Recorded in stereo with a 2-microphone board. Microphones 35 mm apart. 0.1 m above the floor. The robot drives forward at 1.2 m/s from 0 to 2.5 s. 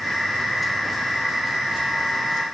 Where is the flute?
No flute in this recording.